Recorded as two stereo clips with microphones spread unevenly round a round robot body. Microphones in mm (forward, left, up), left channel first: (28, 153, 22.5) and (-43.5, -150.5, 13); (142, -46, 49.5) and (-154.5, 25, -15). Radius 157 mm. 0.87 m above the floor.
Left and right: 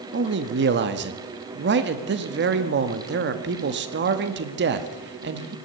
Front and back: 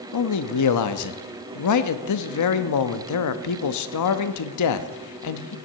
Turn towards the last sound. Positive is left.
turn(degrees=-50)